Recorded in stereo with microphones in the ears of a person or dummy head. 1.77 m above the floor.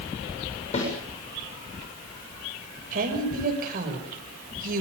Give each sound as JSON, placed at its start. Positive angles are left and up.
{"t": 0.7, "sound": "a snare drum", "side_deg": 35, "distance_m": 7.5}
{"t": 2.9, "sound": "a woman speaking", "side_deg": -60, "distance_m": 7.0}